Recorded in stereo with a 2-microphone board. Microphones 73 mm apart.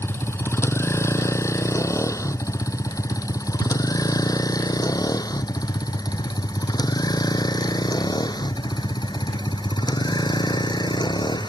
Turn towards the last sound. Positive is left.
turn(degrees=80)